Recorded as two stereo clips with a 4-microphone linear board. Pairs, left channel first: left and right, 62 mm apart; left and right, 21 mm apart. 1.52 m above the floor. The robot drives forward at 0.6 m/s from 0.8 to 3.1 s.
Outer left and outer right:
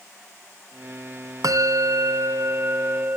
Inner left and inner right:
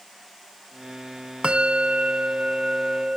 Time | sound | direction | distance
1.4 | a bell | 85° right | ?